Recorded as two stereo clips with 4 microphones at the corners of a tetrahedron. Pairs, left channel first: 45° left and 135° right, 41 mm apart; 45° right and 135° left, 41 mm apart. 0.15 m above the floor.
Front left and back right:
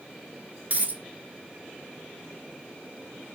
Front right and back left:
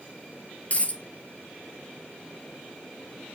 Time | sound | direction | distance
0.7 | a dropped coin | 90° right | 0.8 m